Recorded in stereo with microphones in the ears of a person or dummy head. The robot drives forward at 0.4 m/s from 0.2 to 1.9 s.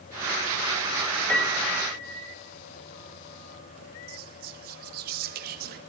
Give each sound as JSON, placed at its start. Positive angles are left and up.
{"t": 1.3, "sound": "a piano", "side_deg": 5, "distance_m": 1.1}
{"t": 4.1, "sound": "whispering", "side_deg": -45, "distance_m": 0.8}